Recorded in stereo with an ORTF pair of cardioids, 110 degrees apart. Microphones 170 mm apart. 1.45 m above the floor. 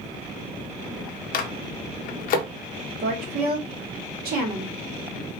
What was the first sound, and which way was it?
A microwave, 55° left.